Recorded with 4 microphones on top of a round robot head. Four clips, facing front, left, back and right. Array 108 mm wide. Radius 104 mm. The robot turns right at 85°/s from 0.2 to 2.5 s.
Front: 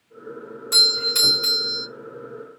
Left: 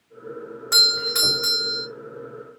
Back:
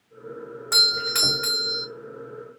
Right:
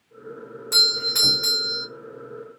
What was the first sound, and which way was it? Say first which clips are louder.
A doorbell: left 3 dB, even; 140° left.